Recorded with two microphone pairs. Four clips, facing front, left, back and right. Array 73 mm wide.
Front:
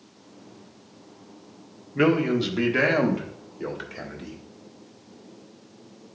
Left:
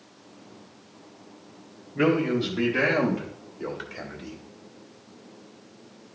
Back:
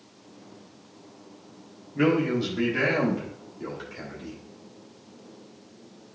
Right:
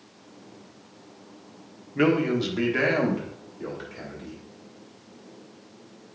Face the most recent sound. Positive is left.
turn(degrees=40)